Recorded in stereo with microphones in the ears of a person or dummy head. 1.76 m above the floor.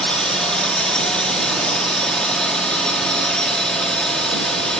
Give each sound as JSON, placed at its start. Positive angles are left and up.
{"t": 0.0, "sound": "a drone", "side_deg": 5}